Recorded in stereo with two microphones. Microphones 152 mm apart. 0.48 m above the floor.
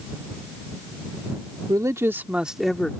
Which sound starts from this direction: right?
A man speaking, at 1.7 s.